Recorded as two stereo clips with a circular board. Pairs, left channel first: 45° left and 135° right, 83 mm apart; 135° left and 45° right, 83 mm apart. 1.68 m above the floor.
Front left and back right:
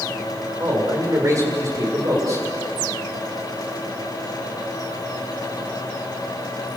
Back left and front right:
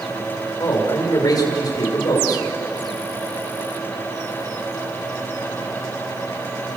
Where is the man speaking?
175° left, 7 m.